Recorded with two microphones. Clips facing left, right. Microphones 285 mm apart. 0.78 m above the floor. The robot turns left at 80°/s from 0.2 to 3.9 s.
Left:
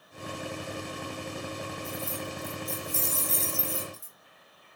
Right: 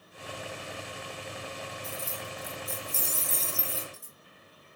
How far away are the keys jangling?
About 1.5 m.